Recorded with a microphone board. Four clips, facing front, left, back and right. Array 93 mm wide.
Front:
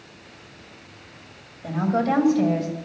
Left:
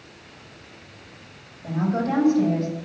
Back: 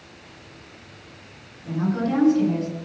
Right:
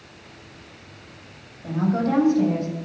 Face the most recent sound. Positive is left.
turn(degrees=0)